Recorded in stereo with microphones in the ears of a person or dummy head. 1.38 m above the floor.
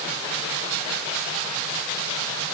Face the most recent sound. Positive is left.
No sound to turn to.